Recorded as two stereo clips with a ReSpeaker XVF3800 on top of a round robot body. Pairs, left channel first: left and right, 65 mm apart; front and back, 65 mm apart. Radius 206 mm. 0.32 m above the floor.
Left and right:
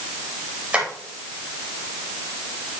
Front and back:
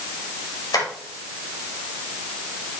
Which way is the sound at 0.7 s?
20° right.